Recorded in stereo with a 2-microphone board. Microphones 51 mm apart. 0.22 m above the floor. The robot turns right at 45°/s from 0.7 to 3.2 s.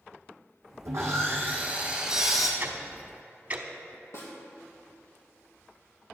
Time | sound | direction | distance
0.8 | sawing | 70° right | 1.7 m
2.6 | ticking | 45° right (ahead or behind) | 0.9 m
4.1 | a snare drum | 65° left (ahead or behind) | 3 m